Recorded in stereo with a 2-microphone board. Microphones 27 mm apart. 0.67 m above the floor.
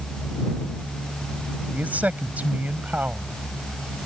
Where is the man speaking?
80° right.